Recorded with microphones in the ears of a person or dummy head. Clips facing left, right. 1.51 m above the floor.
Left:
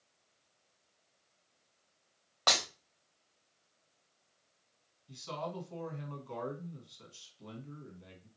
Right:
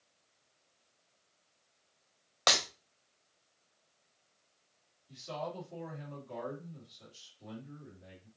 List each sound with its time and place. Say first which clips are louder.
2.5 s breaking glass: right 2 dB; 15° right (ahead or behind), 1.0 m
5.1 s a man speaking: right 1 dB; 85° left, 2 m